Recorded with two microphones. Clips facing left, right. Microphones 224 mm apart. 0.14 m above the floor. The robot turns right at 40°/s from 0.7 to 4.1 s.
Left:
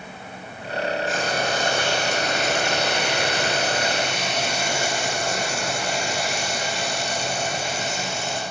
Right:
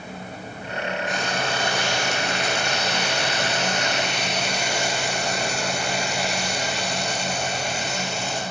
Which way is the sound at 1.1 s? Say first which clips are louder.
Left 2 dB; straight ahead.